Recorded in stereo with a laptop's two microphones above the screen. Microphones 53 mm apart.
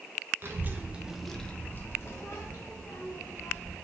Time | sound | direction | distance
0.4 | a child speaking | 45° right (ahead or behind) | 0.7 m